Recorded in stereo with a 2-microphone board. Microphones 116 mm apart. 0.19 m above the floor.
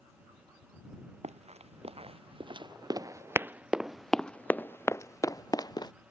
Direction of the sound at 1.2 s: 70° right (ahead or behind).